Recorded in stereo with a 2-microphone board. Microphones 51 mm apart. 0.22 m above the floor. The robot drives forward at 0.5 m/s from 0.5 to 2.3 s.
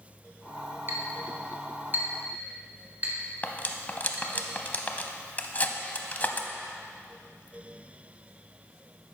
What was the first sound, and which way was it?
A clink, 45° right (ahead or behind).